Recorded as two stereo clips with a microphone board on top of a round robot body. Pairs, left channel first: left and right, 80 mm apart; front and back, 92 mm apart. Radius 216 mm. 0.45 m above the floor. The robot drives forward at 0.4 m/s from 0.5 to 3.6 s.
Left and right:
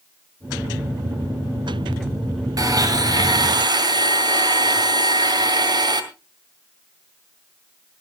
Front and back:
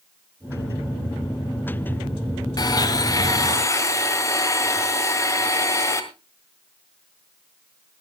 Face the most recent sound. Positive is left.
turn(degrees=-60)